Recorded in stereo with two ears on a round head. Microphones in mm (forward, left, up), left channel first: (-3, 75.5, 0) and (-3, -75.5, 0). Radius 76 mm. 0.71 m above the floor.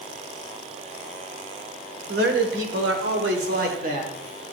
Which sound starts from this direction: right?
A man speaking, at 2.1 s.